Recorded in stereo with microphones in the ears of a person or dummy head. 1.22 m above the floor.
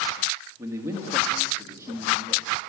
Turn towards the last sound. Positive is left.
turn(degrees=-15)  # may be behind; listen again after turning